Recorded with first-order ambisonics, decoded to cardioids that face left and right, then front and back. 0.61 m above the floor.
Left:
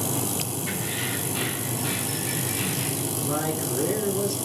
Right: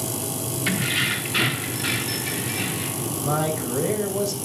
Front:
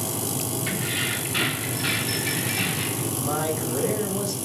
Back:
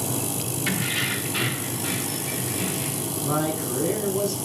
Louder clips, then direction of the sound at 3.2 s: Right 5 dB, back 1 dB; 75° right.